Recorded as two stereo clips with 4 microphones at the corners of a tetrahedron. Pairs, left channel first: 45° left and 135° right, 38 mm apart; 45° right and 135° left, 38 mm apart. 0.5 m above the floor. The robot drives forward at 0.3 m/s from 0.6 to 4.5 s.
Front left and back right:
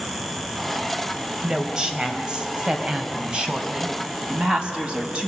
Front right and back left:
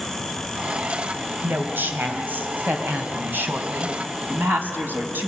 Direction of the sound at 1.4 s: 155° left.